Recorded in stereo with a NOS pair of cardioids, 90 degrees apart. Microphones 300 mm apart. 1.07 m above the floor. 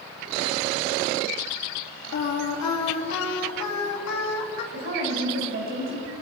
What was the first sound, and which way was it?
Singing, 60° left.